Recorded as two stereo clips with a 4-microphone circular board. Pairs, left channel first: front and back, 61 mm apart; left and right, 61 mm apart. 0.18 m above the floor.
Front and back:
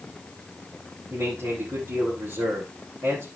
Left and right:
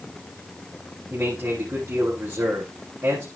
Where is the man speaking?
140° right, 8.5 m.